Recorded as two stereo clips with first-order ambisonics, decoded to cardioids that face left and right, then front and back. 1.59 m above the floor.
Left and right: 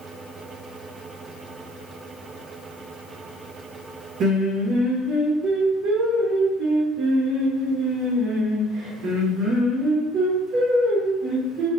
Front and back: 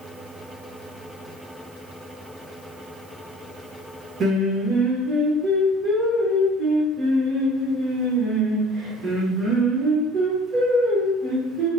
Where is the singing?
130° right, 0.8 m.